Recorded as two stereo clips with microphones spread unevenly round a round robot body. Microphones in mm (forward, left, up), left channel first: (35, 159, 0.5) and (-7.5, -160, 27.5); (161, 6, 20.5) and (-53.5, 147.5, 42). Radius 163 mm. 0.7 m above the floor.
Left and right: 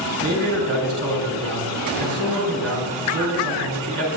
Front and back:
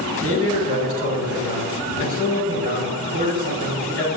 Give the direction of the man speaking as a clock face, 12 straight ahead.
5 o'clock.